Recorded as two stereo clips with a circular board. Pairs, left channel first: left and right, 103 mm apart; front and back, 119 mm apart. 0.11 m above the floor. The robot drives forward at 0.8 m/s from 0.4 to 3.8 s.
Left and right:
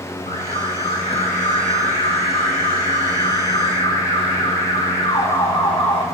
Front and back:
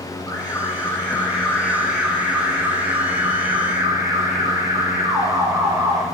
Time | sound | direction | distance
0.3 | an alarm | 65° left | 3 m